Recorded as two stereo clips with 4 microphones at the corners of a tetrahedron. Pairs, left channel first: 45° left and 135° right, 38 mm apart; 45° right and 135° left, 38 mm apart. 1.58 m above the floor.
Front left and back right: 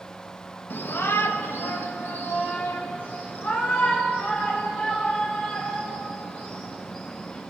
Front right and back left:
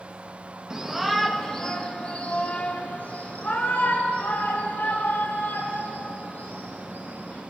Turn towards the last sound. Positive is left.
turn(degrees=-5)